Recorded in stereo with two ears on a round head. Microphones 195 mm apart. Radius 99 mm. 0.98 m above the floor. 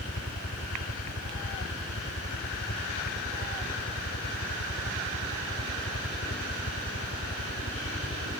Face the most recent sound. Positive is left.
turn(degrees=60)  # may be behind; listen again after turning